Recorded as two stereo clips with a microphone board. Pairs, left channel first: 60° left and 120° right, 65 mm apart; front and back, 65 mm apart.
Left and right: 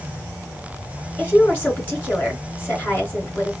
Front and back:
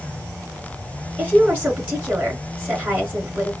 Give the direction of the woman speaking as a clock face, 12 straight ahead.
8 o'clock.